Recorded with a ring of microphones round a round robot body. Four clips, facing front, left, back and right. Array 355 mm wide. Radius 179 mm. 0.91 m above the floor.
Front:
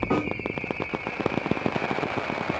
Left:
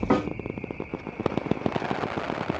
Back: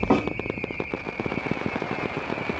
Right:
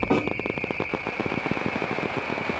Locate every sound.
0.1 s a snare drum: 150° left, 1.9 m